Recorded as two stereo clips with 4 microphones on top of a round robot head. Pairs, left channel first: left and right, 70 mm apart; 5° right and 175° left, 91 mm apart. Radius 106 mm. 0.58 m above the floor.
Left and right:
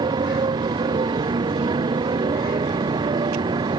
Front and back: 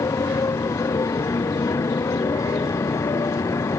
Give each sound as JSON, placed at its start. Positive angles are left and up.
{"t": 0.0, "sound": "a motorcycle", "azimuth_deg": -65}